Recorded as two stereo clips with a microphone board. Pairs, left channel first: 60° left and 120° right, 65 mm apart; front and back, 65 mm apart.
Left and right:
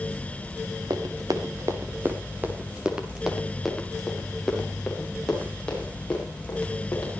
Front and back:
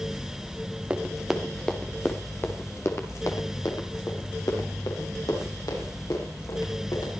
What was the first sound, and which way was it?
Running footsteps, 105° right.